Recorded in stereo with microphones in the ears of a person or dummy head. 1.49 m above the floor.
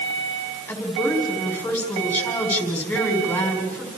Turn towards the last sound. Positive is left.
turn(degrees=5)  # may be behind; listen again after turning